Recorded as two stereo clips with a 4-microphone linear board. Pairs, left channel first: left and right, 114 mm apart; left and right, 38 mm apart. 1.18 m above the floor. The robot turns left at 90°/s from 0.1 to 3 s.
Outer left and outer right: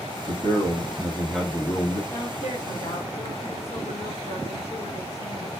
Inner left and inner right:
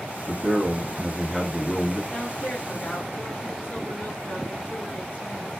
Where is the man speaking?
85° right, 1.4 m; by 2.0 s 120° left, 1.4 m.